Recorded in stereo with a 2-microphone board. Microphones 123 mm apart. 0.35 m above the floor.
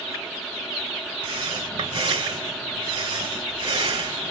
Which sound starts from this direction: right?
Breathing, at 1.2 s.